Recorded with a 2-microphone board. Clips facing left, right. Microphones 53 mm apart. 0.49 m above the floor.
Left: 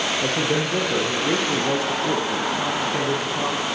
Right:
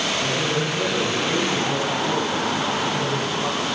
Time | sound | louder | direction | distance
0.2 | a man speaking | left 1 dB | 75° left (ahead or behind) | 9 m